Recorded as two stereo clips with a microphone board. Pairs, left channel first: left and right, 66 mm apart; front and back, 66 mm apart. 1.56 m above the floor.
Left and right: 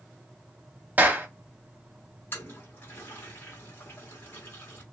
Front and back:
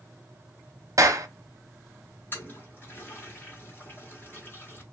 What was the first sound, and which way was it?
A clap, 150° right.